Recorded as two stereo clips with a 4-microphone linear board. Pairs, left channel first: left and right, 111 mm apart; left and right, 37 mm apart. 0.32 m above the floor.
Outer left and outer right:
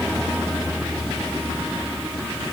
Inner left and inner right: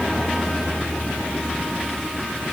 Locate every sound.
Only background noise.